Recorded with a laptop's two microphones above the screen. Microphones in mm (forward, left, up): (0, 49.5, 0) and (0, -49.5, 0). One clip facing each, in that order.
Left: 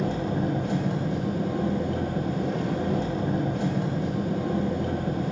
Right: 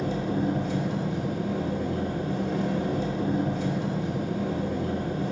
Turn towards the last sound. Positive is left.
turn(degrees=65)  # may be behind; listen again after turning